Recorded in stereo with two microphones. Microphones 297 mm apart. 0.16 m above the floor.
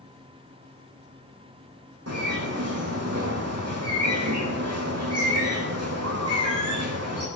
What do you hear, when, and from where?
2.1 s a bird: 55° right (ahead or behind), 4.5 m